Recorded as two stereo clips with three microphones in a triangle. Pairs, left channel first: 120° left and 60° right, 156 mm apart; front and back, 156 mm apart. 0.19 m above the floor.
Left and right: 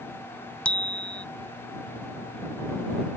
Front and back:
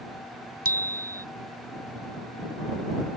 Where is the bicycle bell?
155° right.